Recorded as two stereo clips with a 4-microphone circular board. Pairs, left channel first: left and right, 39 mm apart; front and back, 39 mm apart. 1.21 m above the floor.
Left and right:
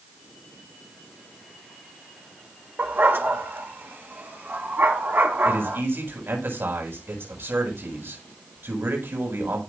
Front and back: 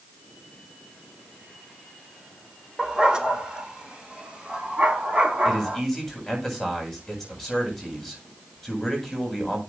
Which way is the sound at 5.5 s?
90° right.